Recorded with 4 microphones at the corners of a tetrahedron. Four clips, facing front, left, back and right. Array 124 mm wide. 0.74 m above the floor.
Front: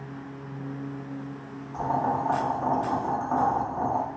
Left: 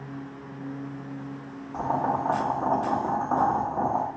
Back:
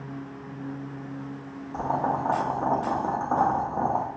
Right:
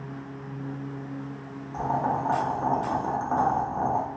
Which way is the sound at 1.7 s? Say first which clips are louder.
Even, even; 150° left.